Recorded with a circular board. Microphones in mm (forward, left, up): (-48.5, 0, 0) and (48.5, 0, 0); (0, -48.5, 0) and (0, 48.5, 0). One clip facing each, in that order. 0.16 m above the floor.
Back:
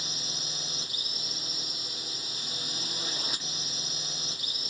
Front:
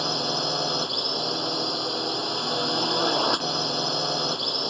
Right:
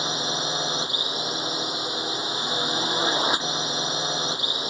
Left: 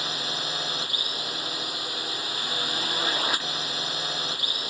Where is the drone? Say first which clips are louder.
Front 16 dB, right 5 dB; 20° right.